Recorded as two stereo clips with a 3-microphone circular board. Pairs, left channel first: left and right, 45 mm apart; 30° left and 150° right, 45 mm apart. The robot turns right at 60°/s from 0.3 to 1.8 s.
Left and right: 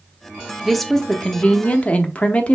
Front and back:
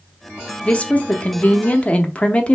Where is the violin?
I don't hear a violin.